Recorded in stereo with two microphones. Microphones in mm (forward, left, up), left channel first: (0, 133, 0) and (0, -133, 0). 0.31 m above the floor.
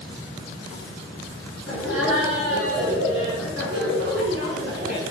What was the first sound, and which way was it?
Laughter, 65° right (ahead or behind).